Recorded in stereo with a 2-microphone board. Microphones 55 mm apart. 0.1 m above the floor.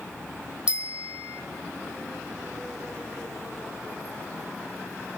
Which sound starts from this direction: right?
A bicycle bell, at 0.7 s.